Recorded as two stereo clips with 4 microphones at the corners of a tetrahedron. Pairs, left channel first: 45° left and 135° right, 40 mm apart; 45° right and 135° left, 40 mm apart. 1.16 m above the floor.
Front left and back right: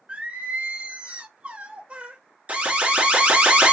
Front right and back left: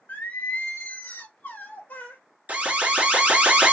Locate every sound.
0.1 s singing: 80° right, 0.7 m
2.5 s an alarm: 175° left, 0.8 m